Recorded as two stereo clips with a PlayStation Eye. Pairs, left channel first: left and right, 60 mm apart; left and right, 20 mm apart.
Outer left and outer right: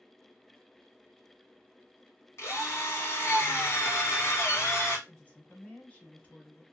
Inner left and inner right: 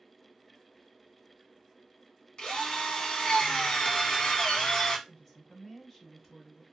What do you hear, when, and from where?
2.4 s a drill: 50° left (ahead or behind), 1.0 m
5.1 s a woman speaking: 20° left (ahead or behind), 1.1 m